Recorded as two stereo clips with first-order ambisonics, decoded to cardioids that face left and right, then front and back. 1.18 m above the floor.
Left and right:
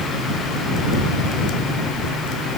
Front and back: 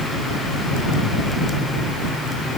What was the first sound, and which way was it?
Only background noise.